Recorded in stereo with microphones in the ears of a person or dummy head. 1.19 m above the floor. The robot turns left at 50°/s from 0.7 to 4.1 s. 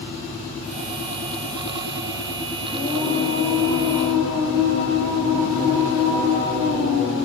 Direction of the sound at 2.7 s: 155° left.